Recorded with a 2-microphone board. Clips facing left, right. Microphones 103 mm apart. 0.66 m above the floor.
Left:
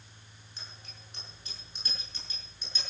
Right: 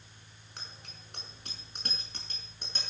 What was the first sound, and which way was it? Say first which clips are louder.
A bicycle bell: right 2 dB; 65° right (ahead or behind).